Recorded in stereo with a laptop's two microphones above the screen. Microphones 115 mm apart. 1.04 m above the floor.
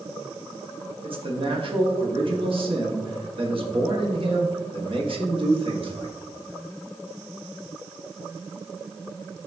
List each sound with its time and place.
1.0 s a man speaking: 50° right (ahead or behind), 1.5 m